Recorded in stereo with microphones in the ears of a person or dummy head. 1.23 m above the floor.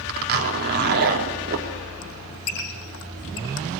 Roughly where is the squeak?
Left.